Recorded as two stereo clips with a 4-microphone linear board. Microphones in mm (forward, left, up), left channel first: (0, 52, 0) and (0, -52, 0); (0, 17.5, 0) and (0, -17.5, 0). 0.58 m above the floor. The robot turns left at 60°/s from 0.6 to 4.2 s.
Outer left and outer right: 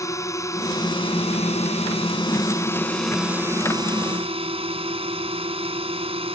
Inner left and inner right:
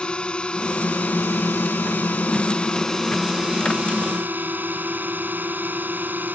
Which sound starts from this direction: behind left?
A drone, at 0.0 s.